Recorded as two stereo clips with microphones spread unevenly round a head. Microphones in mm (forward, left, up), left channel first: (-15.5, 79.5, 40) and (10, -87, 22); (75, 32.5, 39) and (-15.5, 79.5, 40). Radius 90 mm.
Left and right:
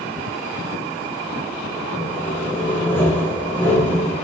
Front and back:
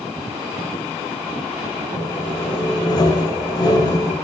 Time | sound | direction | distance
2.0 | sawing | 15° left | 7 m